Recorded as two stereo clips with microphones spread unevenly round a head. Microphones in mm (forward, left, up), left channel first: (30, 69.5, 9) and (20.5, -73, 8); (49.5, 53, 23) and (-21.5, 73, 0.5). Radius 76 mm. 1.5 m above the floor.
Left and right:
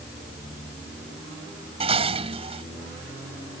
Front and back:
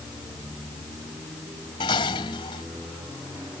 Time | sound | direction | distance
1.8 | dishes clattering | 45° right | ?